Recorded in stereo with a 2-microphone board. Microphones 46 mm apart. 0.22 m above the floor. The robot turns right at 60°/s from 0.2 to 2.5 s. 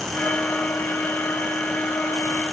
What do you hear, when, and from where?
Only background noise.